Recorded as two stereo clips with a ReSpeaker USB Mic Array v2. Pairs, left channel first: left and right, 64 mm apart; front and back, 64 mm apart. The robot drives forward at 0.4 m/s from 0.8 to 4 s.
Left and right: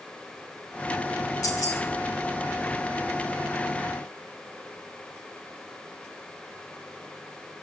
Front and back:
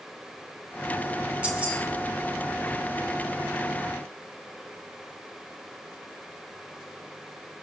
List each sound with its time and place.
1.4 s keys jangling: 110° left, 2.5 m; by 1.8 s 115° left, 2.5 m